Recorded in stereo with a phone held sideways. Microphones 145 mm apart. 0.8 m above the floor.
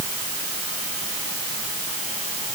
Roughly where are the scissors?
No scissors in this recording.